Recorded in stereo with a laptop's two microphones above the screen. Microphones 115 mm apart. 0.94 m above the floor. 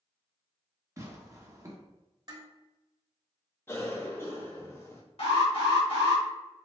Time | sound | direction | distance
1.0 | tearing paper | 30° right (ahead or behind) | 0.8 m
2.3 | dishes clattering | 40° right (ahead or behind) | 1.2 m
3.7 | a cough | 20° left (ahead or behind) | 0.8 m
5.2 | an alarm | 55° left (ahead or behind) | 1.5 m